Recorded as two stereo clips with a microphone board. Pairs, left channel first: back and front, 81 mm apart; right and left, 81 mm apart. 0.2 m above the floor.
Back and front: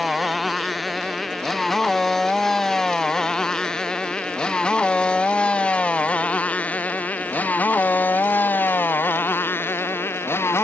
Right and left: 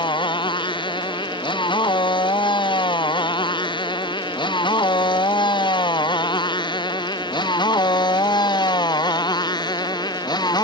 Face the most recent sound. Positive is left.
turn(degrees=-120)